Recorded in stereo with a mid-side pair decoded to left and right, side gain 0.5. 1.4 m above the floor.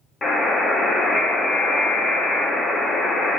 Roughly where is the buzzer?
Ahead.